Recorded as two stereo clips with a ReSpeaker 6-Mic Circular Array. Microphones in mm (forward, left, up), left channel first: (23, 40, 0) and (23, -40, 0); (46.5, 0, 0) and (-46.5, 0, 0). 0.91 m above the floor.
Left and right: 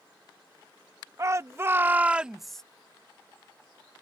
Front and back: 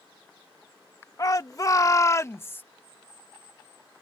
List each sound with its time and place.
1.2 s a shout: 45° right; by 2.6 s 20° left